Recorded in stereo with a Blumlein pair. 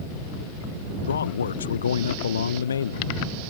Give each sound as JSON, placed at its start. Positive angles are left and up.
{"t": 1.1, "sound": "a man speaking", "azimuth_deg": 70}